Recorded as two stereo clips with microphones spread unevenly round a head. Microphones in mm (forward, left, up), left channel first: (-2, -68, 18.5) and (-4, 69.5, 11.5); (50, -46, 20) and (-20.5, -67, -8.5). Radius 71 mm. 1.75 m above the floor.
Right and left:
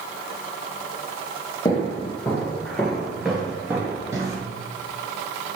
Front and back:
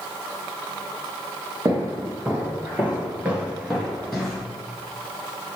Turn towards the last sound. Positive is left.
turn(degrees=45)